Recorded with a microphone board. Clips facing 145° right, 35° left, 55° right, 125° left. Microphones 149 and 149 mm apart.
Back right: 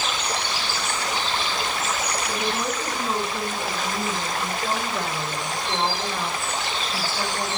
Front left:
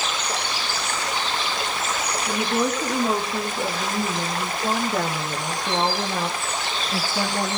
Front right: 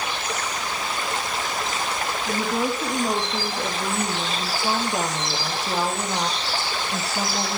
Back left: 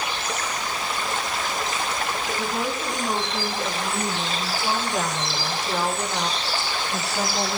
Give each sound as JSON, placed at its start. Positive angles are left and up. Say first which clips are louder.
{"t": 2.3, "sound": "a woman speaking", "louder": "front left 7 dB, front right 6 dB", "azimuth_deg": -5, "distance_m": 7.0}